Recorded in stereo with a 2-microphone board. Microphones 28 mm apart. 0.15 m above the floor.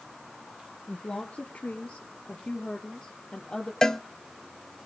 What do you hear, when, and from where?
0.9 s a woman speaking: 65° left (ahead or behind), 2.5 m; by 3.7 s 30° left (ahead or behind), 3.5 m
3.8 s a cowbell: 25° left (ahead or behind), 0.6 m